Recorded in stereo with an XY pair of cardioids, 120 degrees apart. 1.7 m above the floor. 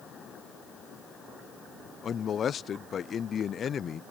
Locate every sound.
2.0 s a man speaking: 45° left